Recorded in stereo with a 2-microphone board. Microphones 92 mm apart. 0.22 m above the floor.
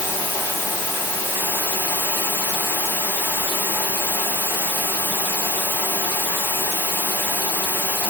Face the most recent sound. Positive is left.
turn(degrees=-20)  # may be behind; listen again after turning